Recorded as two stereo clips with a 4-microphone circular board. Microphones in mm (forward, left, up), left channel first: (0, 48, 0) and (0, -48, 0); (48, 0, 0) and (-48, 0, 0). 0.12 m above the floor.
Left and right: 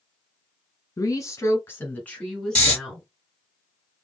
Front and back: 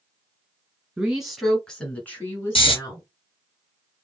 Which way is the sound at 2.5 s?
15° left.